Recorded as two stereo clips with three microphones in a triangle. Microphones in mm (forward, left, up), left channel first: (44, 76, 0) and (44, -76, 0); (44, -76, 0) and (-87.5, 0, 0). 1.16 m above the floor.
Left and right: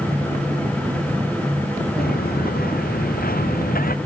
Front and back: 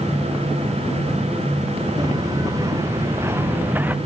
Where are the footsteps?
85° left; by 4.0 s 70° left.